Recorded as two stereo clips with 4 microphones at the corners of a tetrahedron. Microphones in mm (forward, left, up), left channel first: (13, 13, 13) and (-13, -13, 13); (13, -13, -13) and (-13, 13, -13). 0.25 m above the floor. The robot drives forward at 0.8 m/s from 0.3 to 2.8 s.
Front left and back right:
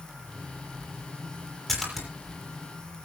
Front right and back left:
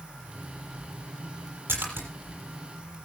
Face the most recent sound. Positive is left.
turn(degrees=140)